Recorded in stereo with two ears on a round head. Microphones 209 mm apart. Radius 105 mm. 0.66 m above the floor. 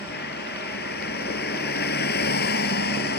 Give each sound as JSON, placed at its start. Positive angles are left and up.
{"t": 0.0, "sound": "a vehicle", "side_deg": 50}